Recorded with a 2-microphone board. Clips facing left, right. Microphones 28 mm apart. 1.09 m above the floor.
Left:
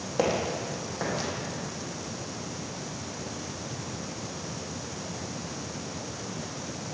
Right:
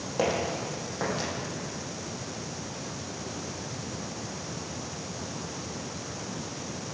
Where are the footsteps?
15° left (ahead or behind), 3 m; by 1.3 s centre (ahead or behind), 2.5 m.